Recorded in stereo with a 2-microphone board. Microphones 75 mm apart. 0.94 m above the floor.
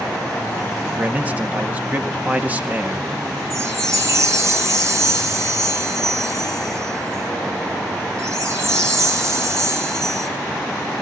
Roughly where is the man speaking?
Right.